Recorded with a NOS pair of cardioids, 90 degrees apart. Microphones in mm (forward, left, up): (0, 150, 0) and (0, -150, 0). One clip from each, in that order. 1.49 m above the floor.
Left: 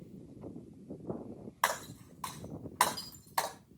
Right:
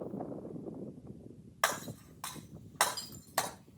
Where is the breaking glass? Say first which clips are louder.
Even; 30° right, 4 m.